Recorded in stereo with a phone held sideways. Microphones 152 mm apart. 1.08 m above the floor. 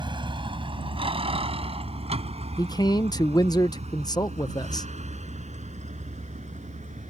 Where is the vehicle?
30° right (ahead or behind); by 7.1 s 50° right (ahead or behind).